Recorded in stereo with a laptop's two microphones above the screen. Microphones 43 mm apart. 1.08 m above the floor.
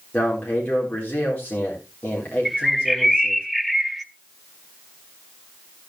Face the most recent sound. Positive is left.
turn(degrees=-5)  # may be behind; listen again after turning